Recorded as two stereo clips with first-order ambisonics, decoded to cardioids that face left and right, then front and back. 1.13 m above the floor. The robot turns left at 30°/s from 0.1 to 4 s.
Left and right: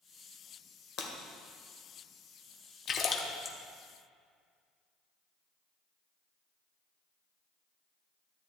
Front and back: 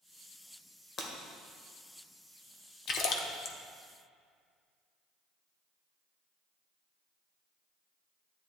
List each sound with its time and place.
1.0 s breaking glass: 55° left, 1.3 m; by 1.1 s 50° left, 1.3 m
2.9 s a splash: 45° left, 0.8 m; by 3.6 s 25° left, 0.8 m